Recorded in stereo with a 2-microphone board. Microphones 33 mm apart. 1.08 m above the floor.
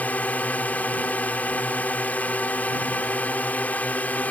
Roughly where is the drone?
Left.